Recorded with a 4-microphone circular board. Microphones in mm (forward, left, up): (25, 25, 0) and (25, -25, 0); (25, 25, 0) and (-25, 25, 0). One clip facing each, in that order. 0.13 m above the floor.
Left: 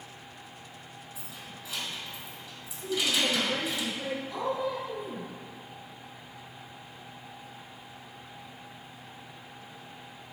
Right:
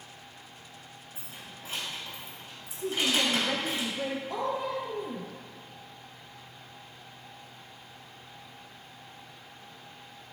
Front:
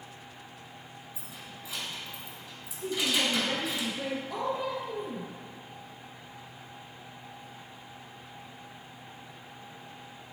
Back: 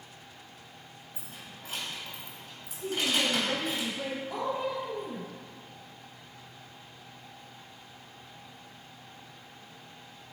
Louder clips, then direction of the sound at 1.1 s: Even, front 1 dB; 140° right.